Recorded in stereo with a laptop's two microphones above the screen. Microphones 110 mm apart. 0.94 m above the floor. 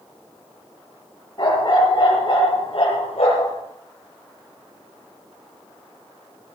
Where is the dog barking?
45° left (ahead or behind), 5 m; by 3.5 s 65° left (ahead or behind), 5 m.